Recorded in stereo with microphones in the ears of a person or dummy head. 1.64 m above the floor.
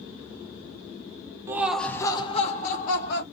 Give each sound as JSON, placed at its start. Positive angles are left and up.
{"t": 1.5, "sound": "laughter", "side_deg": -15, "distance_m": 0.7}